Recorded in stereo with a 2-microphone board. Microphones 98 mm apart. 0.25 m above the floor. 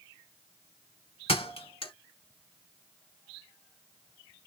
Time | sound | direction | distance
1.3 | a thud | 65° left (ahead or behind) | 1.3 m